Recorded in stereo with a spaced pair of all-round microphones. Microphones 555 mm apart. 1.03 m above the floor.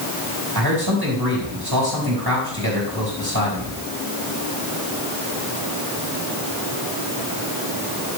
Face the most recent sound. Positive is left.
turn(degrees=-40)  # may be behind; listen again after turning